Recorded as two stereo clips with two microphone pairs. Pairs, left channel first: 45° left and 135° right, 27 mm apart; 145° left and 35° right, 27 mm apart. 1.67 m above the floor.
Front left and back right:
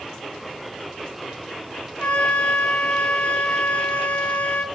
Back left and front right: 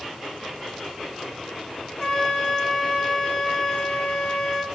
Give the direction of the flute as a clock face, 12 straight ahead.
9 o'clock.